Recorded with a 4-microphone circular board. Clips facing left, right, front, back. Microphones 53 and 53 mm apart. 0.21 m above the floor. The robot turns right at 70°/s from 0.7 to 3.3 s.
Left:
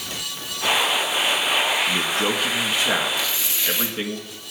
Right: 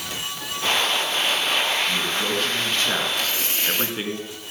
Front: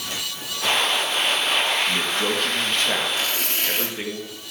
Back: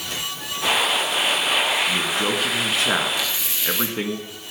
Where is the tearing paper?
50° right, 1.6 m; by 4.0 s 40° right, 1.6 m.